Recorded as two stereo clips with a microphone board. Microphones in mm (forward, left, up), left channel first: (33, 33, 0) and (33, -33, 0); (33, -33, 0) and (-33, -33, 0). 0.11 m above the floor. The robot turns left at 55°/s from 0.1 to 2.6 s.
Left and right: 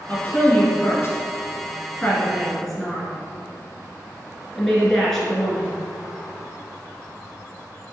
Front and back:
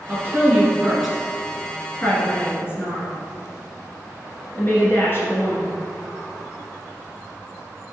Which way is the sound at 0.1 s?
145° left.